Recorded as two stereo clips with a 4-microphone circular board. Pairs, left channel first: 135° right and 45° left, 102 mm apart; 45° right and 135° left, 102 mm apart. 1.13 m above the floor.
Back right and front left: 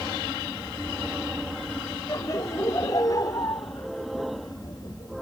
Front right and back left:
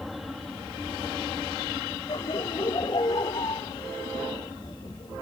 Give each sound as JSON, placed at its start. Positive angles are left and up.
{"t": 2.1, "sound": "laughter", "azimuth_deg": -80}